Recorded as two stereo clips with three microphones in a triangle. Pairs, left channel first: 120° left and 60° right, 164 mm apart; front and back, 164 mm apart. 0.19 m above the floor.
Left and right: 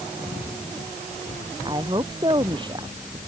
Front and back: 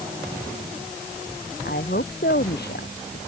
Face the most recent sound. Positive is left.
turn(degrees=0)